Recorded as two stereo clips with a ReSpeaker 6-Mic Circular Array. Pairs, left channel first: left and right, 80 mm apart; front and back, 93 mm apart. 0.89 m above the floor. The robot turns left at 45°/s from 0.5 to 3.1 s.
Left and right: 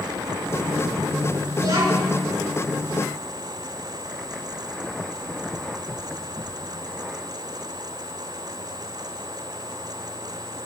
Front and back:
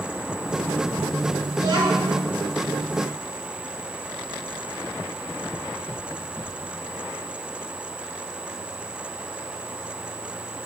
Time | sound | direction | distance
1.6 | a child speaking | 130° right | 8 m